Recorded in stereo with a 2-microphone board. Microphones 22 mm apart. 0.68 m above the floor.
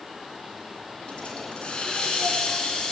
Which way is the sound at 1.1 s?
55° left (ahead or behind).